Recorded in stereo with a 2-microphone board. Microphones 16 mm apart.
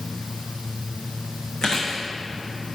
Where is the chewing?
40° left (ahead or behind), 3.5 m.